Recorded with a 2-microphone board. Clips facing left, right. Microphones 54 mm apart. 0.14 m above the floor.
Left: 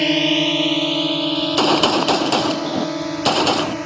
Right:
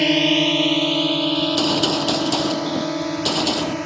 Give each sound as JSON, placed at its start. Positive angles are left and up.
{"t": 0.0, "sound": "a drone", "side_deg": 0}
{"t": 1.4, "sound": "a gunshot", "side_deg": 55}